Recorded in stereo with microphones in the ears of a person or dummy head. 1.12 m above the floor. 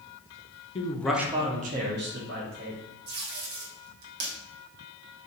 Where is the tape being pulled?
65° right (ahead or behind), 1.0 m.